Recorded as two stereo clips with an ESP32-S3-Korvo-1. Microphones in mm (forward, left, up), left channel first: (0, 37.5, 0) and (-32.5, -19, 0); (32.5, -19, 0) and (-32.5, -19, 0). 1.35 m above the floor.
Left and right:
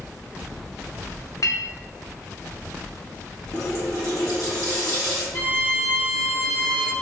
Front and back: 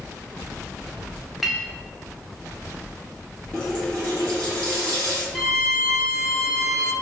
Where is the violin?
80° left, 1.0 m.